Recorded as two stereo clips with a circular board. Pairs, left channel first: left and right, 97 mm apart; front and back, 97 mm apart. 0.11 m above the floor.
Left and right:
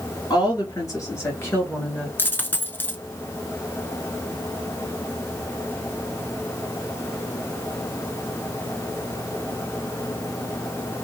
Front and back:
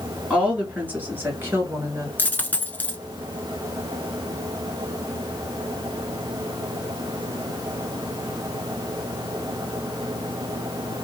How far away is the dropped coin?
About 0.6 m.